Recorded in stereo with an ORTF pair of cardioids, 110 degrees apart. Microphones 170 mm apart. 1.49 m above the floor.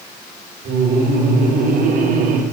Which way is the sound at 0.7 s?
65° right.